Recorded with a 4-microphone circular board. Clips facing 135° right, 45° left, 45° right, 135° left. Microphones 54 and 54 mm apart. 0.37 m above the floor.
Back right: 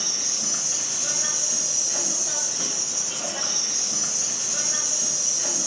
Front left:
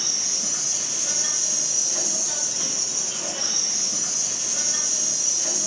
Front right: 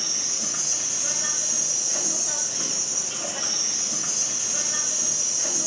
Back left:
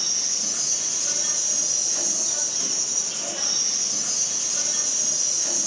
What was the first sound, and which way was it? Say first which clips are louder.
An insect: even, front right 1 dB; 90° right.